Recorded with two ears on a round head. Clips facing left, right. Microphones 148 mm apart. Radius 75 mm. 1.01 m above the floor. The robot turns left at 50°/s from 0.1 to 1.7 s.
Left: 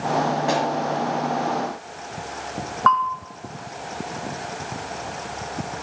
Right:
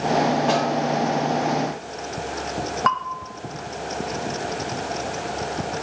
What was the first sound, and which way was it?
A snare drum, 15° left (ahead or behind).